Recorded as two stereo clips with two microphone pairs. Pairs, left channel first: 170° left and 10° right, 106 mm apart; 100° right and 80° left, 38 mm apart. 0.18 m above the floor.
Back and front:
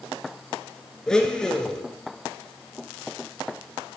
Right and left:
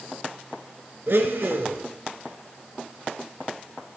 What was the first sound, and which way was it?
A blender, 85° left.